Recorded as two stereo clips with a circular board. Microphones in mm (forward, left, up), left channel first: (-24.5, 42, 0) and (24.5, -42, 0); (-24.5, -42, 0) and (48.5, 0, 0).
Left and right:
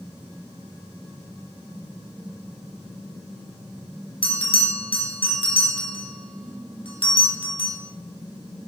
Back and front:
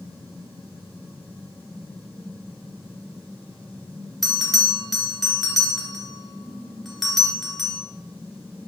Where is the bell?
120° left, 0.8 m.